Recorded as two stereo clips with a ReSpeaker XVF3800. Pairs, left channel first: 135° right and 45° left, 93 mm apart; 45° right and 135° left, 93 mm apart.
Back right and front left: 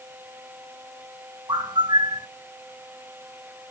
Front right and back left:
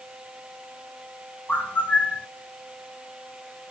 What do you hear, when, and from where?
1.5 s a bird: 20° left, 1.0 m